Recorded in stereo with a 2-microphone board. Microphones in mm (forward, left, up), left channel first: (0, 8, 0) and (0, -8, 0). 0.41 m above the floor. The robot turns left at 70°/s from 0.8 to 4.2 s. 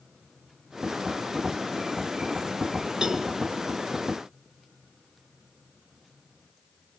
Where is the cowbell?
55° right (ahead or behind), 1.9 m; by 3.3 s 45° right (ahead or behind), 1.9 m.